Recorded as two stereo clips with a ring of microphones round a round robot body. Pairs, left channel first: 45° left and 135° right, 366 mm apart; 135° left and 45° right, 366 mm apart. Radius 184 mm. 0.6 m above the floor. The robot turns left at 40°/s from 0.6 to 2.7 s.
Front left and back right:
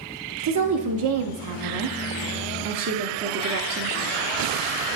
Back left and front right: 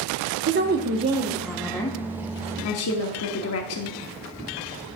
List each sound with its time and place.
0.4 s a woman speaking: 100° right, 0.9 m; by 4.0 s 175° left, 0.9 m